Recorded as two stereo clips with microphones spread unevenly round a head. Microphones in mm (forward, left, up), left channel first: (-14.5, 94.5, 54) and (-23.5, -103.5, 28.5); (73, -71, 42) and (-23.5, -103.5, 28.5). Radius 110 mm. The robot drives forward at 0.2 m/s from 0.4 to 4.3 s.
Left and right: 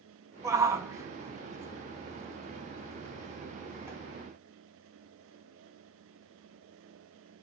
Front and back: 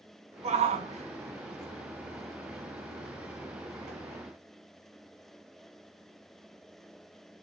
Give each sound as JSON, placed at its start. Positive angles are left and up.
{"t": 0.4, "sound": "a shout", "azimuth_deg": -170, "distance_m": 2.5}